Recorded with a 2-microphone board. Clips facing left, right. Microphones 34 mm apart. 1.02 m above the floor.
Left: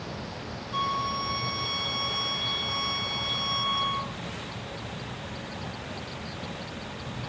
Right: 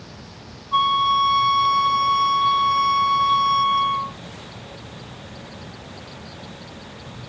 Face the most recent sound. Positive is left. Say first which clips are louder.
# right 11 dB
turn(degrees=-60)  # may be behind; listen again after turning